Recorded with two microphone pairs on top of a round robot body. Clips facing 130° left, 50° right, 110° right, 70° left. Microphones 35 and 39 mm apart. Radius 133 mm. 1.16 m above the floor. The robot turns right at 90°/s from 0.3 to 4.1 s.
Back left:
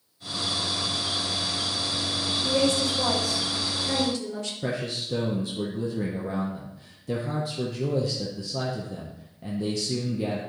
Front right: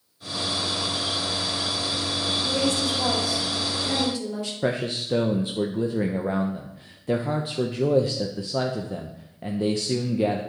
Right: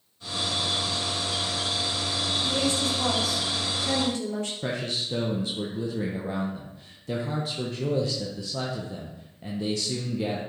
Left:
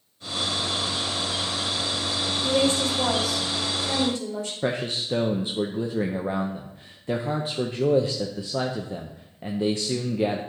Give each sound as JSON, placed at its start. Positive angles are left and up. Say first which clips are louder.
{"t": 2.4, "sound": "a woman speaking", "louder": "back left 3 dB, left 6 dB", "azimuth_deg": 80, "distance_m": 3.0}
{"t": 4.6, "sound": "a man speaking", "louder": "front right 5 dB, left 3 dB", "azimuth_deg": 5, "distance_m": 0.6}